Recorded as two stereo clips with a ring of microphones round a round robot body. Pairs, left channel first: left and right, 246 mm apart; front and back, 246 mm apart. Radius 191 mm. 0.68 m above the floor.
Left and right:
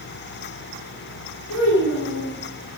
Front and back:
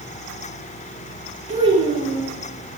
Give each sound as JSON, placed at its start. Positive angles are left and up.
{"t": 1.5, "sound": "a child speaking", "azimuth_deg": 115, "distance_m": 9.0}